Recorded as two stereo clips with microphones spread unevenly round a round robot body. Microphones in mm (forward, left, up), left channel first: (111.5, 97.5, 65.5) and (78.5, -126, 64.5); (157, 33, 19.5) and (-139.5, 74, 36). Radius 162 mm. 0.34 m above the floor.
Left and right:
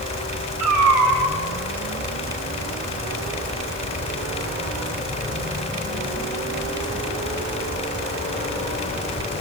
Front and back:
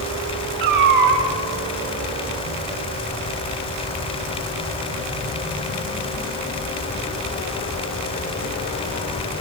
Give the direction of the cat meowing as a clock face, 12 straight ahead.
4 o'clock.